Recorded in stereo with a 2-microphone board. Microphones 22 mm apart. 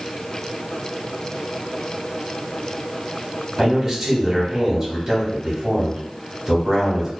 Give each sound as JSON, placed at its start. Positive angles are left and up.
{"t": 3.6, "sound": "a man speaking", "side_deg": -20, "distance_m": 1.2}